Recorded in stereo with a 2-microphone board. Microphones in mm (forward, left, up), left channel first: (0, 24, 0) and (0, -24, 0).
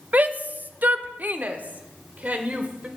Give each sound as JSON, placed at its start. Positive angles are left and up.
{"t": 0.1, "sound": "a shout", "side_deg": -35, "distance_m": 0.7}